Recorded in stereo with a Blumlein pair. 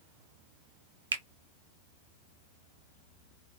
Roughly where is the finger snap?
Right.